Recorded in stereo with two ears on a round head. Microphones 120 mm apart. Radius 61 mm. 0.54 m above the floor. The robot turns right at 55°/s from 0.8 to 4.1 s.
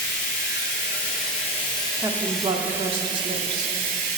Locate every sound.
0.0 s running water: 90° left, 1.9 m; by 4.2 s 90° right, 1.9 m
2.0 s a woman speaking: 145° right, 0.9 m; by 3.8 s 50° right, 0.9 m